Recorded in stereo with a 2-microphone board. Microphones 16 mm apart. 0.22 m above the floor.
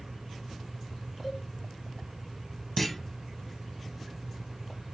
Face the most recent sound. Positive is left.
turn(degrees=10)  # may be behind; listen again after turning